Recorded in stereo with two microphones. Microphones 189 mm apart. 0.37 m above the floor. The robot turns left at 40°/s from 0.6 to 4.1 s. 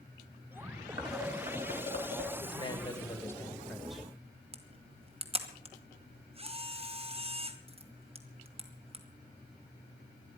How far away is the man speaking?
About 1.6 m.